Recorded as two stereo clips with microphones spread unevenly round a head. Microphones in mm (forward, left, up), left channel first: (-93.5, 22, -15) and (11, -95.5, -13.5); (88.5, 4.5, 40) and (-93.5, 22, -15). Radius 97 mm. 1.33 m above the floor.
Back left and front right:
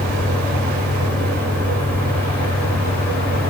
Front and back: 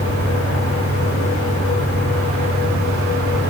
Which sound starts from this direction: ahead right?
A fan, at 0.0 s.